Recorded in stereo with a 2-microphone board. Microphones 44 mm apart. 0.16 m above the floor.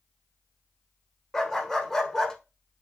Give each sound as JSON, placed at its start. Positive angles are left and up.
{"t": 1.3, "sound": "a dog barking", "side_deg": 10, "distance_m": 0.8}